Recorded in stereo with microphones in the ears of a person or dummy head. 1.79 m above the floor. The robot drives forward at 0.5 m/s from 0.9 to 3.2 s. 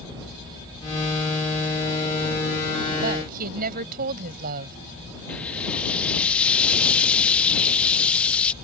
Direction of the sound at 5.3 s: 5° left (ahead or behind).